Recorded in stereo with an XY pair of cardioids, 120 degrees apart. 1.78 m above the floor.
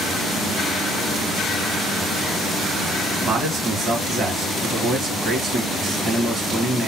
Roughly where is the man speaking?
Ahead right.